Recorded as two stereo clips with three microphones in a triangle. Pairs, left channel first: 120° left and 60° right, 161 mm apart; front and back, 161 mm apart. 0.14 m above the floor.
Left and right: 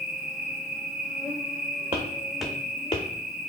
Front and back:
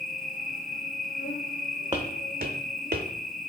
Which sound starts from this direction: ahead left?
An insect, at 0.0 s.